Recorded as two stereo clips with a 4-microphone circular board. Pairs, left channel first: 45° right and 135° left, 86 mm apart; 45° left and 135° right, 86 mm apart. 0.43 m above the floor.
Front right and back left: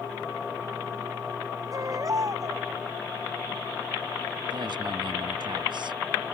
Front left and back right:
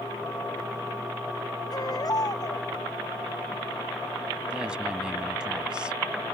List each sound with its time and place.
1.7 s a baby crying: 85° left
4.5 s a woman speaking: 145° left